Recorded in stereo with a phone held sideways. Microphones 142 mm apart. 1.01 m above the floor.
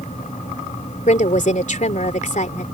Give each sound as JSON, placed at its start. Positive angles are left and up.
{"t": 0.0, "sound": "a fan", "side_deg": 55}
{"t": 1.1, "sound": "a woman speaking", "side_deg": 60}